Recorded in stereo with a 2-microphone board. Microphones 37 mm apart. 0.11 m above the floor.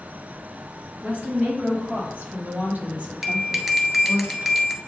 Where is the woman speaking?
50° right (ahead or behind), 2.5 m; by 4.2 s 35° right (ahead or behind), 4.5 m.